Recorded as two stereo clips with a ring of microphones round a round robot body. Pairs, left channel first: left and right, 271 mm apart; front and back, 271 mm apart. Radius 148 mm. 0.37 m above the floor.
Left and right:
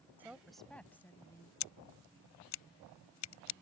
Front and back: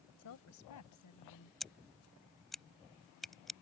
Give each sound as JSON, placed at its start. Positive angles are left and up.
{"t": 0.2, "sound": "a woman speaking", "azimuth_deg": -10}
{"t": 1.6, "sound": "scissors", "azimuth_deg": 90}